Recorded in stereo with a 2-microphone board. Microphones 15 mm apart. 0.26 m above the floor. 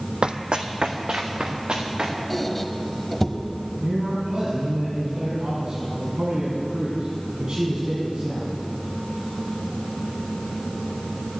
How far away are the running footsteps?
About 0.6 m.